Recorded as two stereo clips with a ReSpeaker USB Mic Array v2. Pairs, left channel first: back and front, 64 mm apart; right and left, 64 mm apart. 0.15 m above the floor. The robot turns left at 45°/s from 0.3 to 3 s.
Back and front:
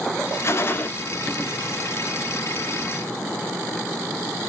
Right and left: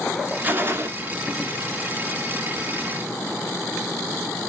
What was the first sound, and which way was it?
A gunshot, 145° left.